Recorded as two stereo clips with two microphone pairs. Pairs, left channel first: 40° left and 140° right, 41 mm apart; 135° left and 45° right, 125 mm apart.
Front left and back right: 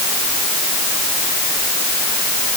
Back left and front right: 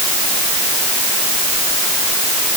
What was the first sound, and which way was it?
Only background noise.